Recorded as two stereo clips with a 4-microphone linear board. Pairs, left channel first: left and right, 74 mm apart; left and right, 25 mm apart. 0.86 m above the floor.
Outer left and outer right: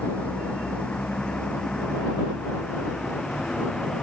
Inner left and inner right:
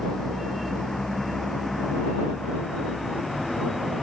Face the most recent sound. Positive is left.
turn(degrees=10)  # may be behind; listen again after turning